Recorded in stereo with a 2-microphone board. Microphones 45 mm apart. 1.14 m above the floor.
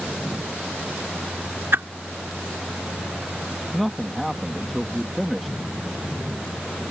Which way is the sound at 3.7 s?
Centre (ahead or behind).